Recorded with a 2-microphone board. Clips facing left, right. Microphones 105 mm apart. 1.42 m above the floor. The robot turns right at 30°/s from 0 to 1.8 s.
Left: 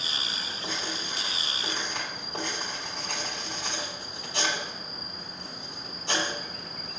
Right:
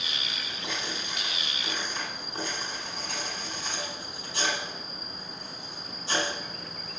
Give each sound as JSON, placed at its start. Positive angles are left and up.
{"t": 0.6, "sound": "writing", "side_deg": 30, "distance_m": 3.0}